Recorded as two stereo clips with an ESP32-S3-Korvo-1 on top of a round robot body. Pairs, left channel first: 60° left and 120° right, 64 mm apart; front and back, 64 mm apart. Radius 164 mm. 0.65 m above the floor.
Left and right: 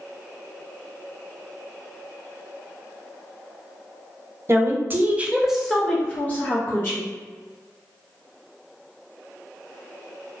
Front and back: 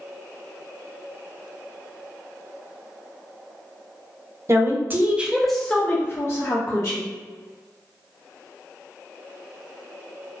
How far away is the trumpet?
I don't hear a trumpet.